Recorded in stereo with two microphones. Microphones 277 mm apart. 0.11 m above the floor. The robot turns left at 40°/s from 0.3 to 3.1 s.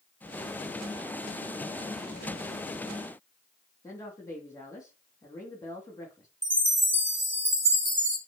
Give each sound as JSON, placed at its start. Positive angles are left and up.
{"t": 3.8, "sound": "a woman speaking", "side_deg": 10, "distance_m": 3.5}
{"t": 6.4, "sound": "a chime", "side_deg": -40, "distance_m": 2.5}